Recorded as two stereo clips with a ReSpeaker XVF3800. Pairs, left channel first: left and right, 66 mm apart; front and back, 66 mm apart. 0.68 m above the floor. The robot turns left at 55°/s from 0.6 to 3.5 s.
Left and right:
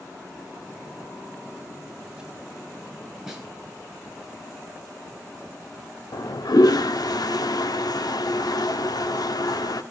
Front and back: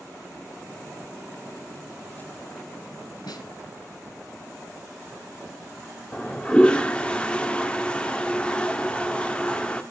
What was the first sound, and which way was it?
A snare drum, 5° right.